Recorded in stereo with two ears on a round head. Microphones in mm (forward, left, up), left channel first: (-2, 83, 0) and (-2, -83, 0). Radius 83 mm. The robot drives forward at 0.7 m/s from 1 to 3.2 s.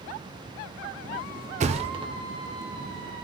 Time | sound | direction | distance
1.6 | a thud | 40° right (ahead or behind) | 0.6 m